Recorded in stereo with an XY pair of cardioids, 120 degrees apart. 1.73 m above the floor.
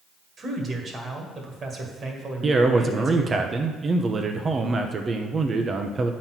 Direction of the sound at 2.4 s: 30° right.